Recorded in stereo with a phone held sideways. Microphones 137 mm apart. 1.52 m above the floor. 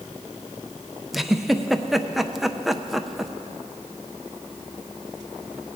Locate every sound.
1.1 s a giggle: centre (ahead or behind), 0.5 m